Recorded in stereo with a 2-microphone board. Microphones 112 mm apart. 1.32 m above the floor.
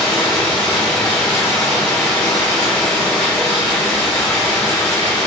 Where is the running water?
5° left (ahead or behind), 1.4 m.